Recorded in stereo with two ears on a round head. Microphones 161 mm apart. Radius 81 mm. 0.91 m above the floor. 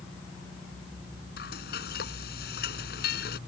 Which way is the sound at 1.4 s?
60° left (ahead or behind).